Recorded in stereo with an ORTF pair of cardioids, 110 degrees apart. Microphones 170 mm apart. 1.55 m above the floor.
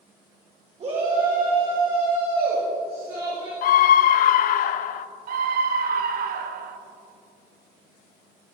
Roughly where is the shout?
Ahead right.